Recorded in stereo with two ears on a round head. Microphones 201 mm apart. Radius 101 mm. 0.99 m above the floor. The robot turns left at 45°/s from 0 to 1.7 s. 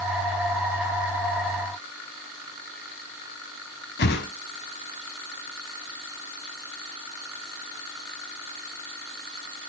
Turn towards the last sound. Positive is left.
turn(degrees=50)  # may be behind; listen again after turning